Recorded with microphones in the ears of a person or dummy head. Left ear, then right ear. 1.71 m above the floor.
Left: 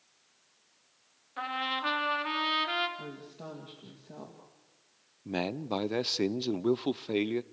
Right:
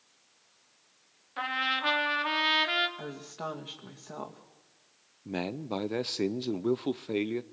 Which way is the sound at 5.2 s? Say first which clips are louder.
Left 2 dB; 5° left (ahead or behind).